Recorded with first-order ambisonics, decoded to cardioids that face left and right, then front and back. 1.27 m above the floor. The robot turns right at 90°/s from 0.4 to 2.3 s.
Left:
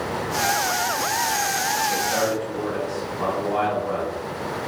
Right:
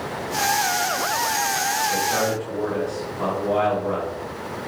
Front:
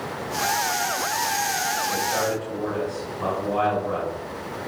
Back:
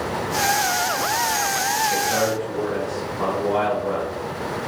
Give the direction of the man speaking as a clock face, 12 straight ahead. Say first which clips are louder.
Even, back 3 dB; 6 o'clock.